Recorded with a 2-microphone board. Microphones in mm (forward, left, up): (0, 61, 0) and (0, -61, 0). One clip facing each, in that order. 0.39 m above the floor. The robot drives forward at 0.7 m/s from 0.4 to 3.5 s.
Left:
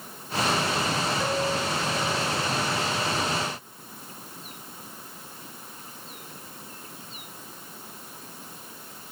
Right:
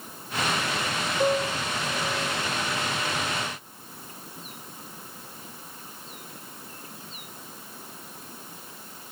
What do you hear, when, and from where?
1.2 s a piano: 10° right (ahead or behind), 1.1 m; by 2.3 s 5° right (ahead or behind), 1.9 m